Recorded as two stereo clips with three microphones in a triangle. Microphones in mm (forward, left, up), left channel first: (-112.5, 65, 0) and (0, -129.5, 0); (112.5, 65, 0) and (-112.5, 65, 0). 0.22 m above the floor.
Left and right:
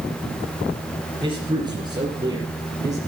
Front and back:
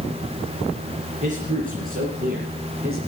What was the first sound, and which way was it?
A man speaking, 125° right.